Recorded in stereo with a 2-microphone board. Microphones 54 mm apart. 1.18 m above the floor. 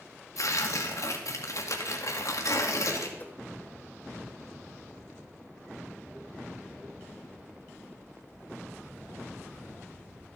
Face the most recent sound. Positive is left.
turn(degrees=35)  # may be behind; listen again after turning